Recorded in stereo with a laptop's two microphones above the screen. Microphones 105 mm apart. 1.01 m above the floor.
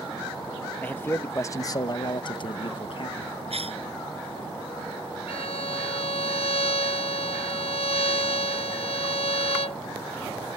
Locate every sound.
0.8 s a man speaking: 15° left (ahead or behind); by 3.4 s 55° left (ahead or behind)
3.5 s a cough: 70° right (ahead or behind)
5.3 s a violin: 80° left